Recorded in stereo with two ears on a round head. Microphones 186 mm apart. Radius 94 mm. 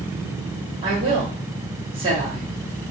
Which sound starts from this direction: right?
A woman speaking, at 0.8 s.